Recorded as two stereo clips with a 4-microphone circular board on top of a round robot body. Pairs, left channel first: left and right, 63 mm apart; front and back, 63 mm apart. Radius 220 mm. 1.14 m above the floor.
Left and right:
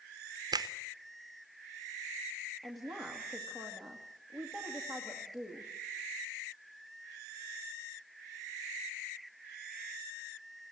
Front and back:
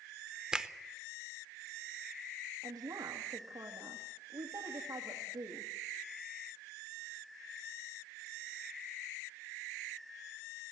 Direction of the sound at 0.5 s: 100° right.